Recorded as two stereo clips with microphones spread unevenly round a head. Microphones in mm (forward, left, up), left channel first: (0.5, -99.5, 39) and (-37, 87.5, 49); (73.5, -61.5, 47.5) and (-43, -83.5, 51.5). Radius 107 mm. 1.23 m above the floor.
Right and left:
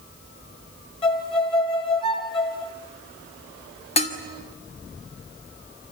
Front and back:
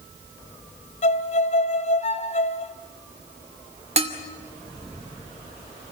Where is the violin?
10° right, 1.8 m.